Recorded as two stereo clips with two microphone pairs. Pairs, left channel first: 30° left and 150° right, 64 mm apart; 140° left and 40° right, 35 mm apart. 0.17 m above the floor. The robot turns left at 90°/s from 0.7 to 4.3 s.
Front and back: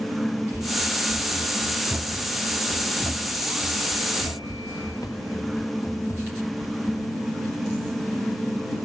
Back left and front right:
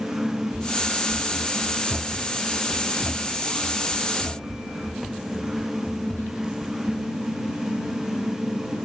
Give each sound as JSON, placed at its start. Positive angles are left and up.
{"t": 0.5, "sound": "running footsteps", "azimuth_deg": -10}